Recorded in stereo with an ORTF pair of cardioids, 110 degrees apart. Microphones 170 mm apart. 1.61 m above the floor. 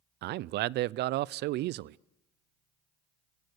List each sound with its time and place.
0.2 s a man speaking: 70° right, 0.5 m